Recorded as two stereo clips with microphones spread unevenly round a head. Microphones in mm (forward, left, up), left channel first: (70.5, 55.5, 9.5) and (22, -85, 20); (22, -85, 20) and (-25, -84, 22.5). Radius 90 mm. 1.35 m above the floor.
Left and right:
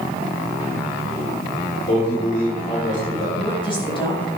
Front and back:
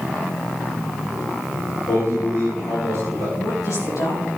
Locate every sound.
1.9 s a man speaking: 40° left, 5.5 m
3.4 s a woman speaking: 15° left, 7.5 m